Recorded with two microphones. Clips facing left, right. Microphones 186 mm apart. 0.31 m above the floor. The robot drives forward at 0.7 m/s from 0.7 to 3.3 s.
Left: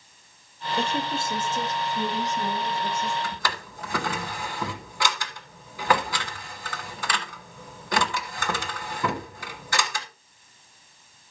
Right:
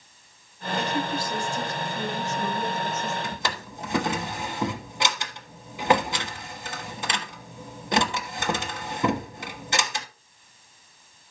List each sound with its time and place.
0.8 s a woman speaking: 30° left (ahead or behind), 1.2 m; by 3.1 s 15° left (ahead or behind), 2.5 m
3.2 s a drawer: 20° right (ahead or behind), 1.2 m